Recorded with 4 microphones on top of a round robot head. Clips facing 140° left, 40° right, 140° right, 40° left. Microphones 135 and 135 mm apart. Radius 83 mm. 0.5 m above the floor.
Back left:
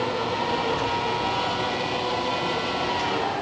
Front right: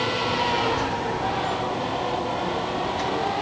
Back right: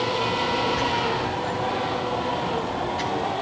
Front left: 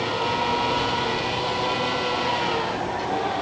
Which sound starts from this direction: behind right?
A child speaking, at 0.2 s.